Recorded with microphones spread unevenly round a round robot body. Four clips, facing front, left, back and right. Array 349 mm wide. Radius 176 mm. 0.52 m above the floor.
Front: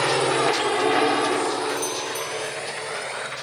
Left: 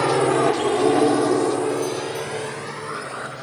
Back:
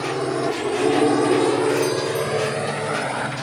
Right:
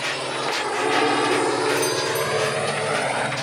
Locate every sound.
0.0 s a drone: 85° left; by 3.4 s 155° right
1.7 s a doorbell: 110° right